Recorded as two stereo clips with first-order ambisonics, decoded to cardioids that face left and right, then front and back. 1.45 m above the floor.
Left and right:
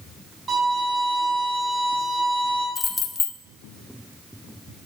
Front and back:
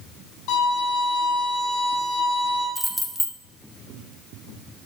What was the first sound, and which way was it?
A violin, 15° right.